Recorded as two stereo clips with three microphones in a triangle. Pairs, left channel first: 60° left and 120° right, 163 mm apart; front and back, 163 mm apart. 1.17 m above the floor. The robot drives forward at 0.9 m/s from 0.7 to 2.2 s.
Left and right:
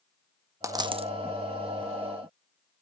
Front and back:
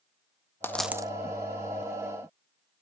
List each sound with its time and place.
0.6 s a dropped coin: 65° right, 0.5 m; by 1.1 s 135° right, 0.6 m